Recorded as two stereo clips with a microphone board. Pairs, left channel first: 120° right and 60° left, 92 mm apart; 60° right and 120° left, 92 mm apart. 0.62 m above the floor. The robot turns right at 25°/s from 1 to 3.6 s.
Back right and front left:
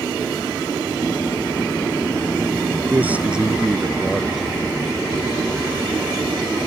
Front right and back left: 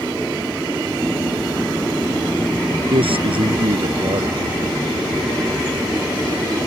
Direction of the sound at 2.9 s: 130° left.